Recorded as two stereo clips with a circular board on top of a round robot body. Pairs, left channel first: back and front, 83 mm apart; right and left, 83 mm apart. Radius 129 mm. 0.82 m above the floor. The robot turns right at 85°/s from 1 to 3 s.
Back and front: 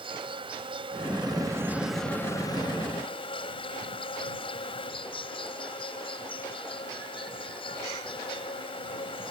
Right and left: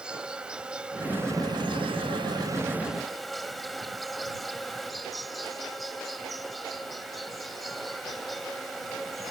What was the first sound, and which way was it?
An insect, 10° left.